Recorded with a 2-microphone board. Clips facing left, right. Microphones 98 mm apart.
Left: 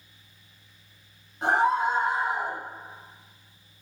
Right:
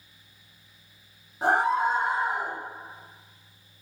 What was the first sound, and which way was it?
A scream, 35° right (ahead or behind).